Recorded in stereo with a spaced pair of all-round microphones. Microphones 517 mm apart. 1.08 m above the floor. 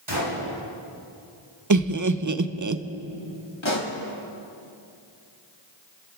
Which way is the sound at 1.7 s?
35° right (ahead or behind).